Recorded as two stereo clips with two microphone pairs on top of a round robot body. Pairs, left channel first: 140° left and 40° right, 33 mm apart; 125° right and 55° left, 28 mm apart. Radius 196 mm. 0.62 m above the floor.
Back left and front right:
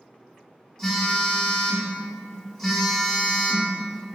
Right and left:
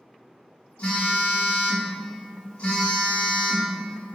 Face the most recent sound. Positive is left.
turn(degrees=-140)